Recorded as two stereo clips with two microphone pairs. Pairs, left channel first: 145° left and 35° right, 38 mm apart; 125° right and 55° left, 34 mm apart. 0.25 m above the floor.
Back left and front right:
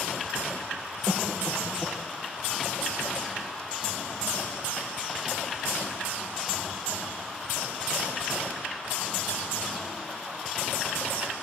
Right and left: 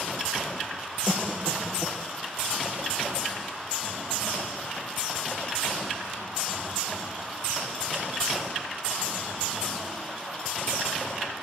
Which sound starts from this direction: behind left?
A cough, at 1.1 s.